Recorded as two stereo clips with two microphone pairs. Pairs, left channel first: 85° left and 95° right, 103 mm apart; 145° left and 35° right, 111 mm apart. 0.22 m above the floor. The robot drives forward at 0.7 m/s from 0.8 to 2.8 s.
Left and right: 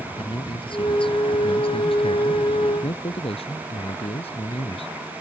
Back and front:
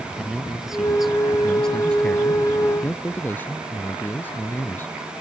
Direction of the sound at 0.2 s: 50° left.